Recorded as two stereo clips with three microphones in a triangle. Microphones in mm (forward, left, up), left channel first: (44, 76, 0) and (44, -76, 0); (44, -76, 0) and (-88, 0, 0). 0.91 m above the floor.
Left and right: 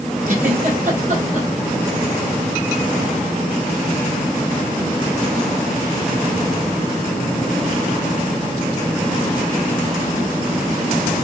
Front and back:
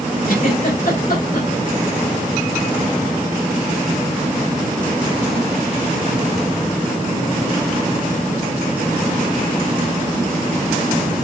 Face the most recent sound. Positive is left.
turn(degrees=-55)